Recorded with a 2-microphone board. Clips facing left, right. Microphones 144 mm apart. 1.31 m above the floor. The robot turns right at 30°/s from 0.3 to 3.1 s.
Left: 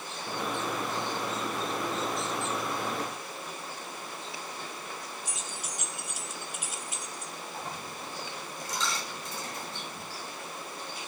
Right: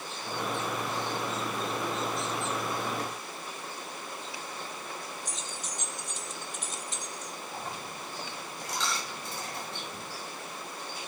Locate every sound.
5.2 s keys jangling: 10° left (ahead or behind), 0.5 m
7.5 s a dropped coin: 70° right (ahead or behind), 4.5 m